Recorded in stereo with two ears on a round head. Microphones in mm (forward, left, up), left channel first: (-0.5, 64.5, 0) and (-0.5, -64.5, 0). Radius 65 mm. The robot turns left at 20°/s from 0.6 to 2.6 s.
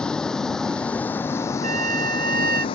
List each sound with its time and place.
0.0 s a vehicle: 5° left (ahead or behind); by 2.8 s 40° left (ahead or behind)
1.6 s a trumpet: 55° right (ahead or behind); by 2.6 s 70° right (ahead or behind)